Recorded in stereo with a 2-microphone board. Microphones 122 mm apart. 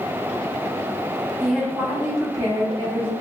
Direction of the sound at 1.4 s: Centre (ahead or behind).